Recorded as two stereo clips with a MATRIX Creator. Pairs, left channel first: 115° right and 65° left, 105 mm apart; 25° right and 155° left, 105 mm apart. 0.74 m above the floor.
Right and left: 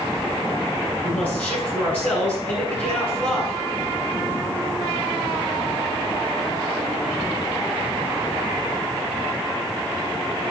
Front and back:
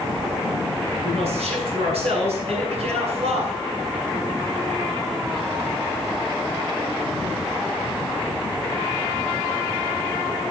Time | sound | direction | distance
1.0 | a man speaking | 175° left | 7 m